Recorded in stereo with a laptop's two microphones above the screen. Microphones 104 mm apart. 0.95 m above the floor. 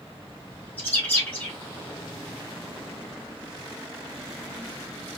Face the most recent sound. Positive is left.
turn(degrees=20)  # may be behind; listen again after turning